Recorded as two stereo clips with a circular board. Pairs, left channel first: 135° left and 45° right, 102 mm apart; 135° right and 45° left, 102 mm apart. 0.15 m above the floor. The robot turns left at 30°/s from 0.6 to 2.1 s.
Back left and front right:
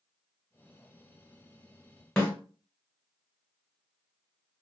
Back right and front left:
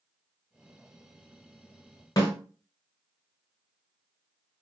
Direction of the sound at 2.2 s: 155° right.